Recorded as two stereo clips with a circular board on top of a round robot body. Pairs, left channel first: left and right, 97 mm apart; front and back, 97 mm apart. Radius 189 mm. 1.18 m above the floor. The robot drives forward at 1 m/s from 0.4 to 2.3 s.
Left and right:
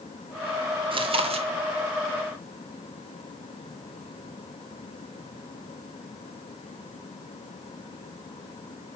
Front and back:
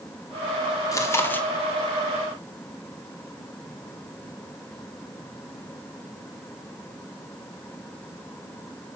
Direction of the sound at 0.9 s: 60° right.